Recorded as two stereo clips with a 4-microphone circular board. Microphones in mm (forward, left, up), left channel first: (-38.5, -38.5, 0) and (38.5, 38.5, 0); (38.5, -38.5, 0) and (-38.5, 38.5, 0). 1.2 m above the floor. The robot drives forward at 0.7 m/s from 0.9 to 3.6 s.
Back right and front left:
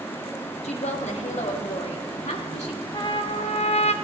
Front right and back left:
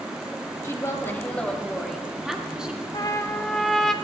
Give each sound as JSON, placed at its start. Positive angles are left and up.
{"t": 0.6, "sound": "a woman speaking", "azimuth_deg": -115, "distance_m": 1.5}
{"t": 2.9, "sound": "a trumpet", "azimuth_deg": -90, "distance_m": 0.6}